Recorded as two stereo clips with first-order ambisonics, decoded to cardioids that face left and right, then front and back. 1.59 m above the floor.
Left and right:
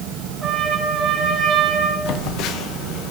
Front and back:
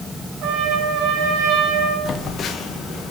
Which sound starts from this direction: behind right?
A trumpet, at 0.4 s.